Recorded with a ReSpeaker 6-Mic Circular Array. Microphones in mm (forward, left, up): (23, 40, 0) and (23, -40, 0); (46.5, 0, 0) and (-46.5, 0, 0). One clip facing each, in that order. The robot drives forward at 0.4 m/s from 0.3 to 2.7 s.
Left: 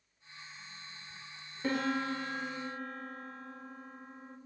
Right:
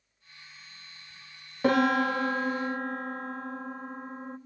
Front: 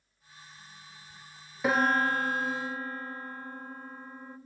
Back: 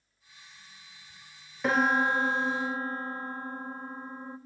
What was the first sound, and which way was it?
A piano, 85° right.